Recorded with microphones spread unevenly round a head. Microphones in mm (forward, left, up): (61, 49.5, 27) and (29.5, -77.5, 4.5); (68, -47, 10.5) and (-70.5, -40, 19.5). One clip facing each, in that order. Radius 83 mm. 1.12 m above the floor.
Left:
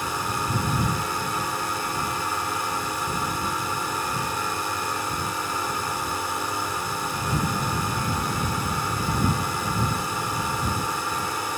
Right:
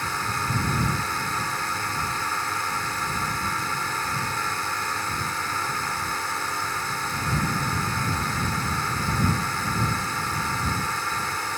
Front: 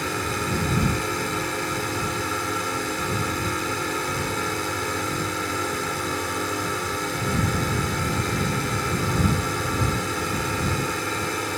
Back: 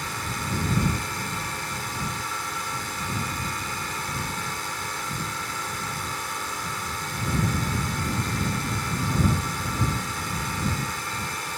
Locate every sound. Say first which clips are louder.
0.0 s a drone: left 2 dB, front 6 dB; straight ahead